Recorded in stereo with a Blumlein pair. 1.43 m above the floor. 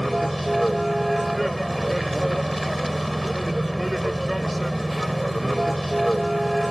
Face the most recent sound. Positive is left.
turn(degrees=0)